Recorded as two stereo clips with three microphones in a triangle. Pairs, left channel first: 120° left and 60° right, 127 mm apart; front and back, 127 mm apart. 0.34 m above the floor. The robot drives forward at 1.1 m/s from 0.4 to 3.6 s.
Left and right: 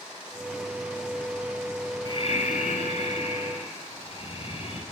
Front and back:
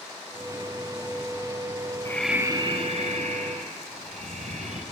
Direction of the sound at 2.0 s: 65° left.